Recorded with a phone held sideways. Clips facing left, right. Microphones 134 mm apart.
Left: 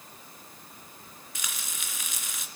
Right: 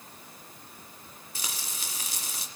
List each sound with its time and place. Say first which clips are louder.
1.4 s frying: right 1 dB; 35° right (ahead or behind), 2.5 m